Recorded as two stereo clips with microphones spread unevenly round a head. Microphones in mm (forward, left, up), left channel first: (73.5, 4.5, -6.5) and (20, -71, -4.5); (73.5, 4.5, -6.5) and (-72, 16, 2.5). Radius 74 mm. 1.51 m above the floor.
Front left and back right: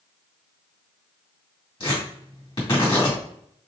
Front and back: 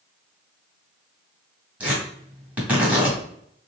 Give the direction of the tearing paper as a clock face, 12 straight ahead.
9 o'clock.